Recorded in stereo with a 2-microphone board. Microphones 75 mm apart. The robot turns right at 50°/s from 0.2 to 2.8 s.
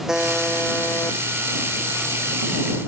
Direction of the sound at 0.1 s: 10° right.